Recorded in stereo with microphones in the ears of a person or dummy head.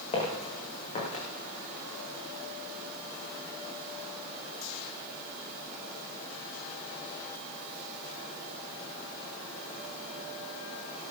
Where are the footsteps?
35° left (ahead or behind), 6.5 m; by 1.2 s 40° left (ahead or behind), 7.5 m.